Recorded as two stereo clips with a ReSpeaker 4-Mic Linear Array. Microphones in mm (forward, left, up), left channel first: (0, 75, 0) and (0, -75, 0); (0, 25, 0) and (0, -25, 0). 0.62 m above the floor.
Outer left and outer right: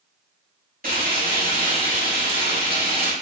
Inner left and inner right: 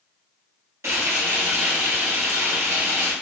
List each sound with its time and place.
0.8 s frying: 70° right (ahead or behind), 1.2 m